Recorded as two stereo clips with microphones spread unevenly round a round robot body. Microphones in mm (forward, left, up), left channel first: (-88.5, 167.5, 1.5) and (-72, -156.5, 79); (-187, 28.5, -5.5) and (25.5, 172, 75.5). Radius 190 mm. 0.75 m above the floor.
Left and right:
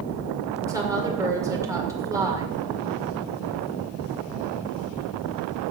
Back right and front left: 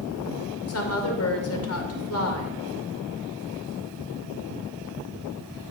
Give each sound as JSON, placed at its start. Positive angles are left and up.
{"t": 0.7, "sound": "a woman speaking", "azimuth_deg": -170, "distance_m": 2.5}